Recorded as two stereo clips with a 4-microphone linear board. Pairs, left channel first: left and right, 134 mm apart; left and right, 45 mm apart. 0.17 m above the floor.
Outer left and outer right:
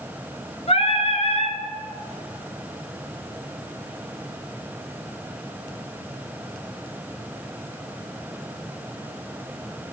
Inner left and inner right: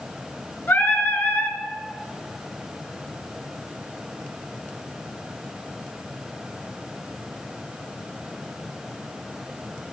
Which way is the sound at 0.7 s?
50° left (ahead or behind).